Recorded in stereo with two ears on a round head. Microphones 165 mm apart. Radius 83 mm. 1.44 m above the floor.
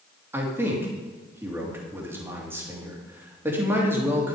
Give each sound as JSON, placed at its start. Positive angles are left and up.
{"t": 0.3, "sound": "a man speaking", "side_deg": -15, "distance_m": 3.0}